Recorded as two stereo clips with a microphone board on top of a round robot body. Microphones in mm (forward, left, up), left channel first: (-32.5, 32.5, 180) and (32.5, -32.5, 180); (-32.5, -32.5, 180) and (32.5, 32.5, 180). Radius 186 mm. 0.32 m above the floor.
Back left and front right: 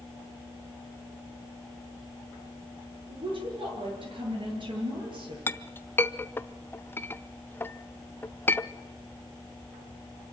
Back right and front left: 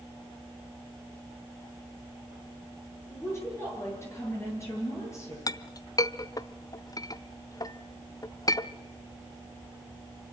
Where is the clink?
165° right, 0.9 m.